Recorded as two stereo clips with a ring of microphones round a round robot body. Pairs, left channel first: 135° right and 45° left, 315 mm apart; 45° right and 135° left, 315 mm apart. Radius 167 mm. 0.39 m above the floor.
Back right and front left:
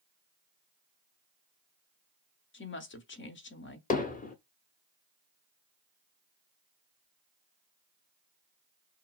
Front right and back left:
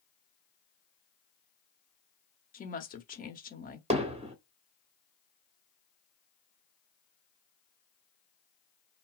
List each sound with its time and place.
2.5 s a woman speaking: 100° right, 1.2 m
3.9 s hammering: 170° right, 1.2 m